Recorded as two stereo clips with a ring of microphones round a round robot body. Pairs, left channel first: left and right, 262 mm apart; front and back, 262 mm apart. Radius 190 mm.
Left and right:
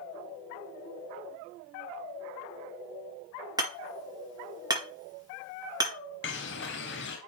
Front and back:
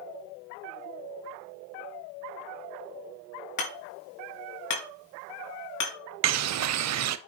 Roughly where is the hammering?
Ahead.